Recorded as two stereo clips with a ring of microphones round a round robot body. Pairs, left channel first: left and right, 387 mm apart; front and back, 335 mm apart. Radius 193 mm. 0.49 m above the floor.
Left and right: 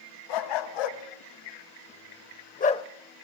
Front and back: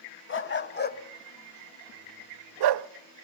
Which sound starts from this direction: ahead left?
A dog barking, at 0.3 s.